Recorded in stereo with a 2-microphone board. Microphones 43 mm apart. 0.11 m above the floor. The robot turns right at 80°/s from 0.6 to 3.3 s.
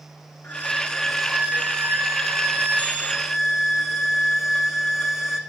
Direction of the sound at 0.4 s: 135° left.